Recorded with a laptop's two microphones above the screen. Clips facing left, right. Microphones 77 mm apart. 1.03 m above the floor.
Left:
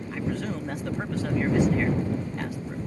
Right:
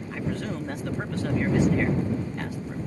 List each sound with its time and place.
0.1 s a man speaking: centre (ahead or behind)